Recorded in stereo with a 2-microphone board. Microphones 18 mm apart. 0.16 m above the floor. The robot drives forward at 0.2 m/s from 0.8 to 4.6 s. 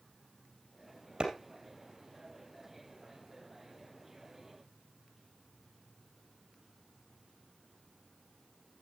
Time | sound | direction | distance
1.2 | a clap | 65° right (ahead or behind) | 3 m